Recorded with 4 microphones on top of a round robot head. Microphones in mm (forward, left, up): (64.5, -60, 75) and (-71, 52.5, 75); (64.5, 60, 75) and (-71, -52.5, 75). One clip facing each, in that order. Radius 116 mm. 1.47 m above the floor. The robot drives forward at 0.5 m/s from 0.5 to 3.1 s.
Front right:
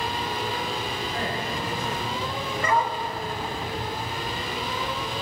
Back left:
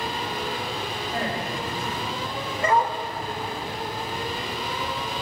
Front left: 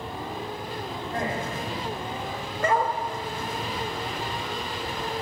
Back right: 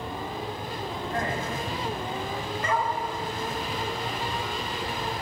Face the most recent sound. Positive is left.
turn(degrees=90)